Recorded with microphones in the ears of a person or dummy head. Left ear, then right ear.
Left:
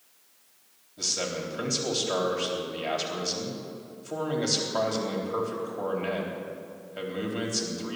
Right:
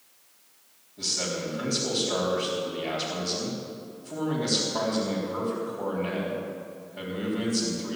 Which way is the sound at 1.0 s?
65° left (ahead or behind).